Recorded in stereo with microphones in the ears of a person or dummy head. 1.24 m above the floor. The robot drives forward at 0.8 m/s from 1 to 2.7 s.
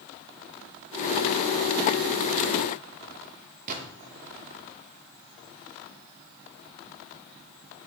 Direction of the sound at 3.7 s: 50° right (ahead or behind).